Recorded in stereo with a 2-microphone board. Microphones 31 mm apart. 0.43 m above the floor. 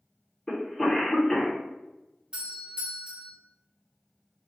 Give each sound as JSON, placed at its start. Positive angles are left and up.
{"t": 0.5, "sound": "a cough", "side_deg": 20, "distance_m": 0.8}
{"t": 2.3, "sound": "a doorbell", "side_deg": -30, "distance_m": 1.5}